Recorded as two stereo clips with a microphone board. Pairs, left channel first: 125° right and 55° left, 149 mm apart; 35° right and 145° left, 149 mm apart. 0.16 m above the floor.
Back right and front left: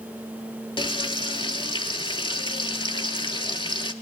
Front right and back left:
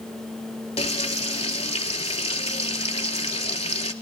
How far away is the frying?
About 0.6 m.